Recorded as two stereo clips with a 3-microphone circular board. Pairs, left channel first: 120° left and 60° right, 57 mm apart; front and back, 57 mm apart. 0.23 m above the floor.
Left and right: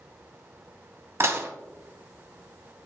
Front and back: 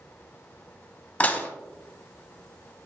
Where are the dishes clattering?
55° right, 0.8 m.